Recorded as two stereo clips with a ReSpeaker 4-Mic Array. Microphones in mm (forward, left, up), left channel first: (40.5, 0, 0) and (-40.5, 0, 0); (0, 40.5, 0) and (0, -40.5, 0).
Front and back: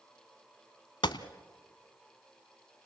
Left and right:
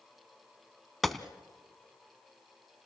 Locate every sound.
1.0 s a gunshot: straight ahead, 0.8 m